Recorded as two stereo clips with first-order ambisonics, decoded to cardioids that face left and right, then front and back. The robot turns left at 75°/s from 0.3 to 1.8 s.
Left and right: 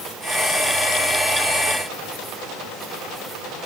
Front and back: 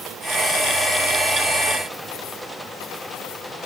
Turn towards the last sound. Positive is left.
No sound to turn to.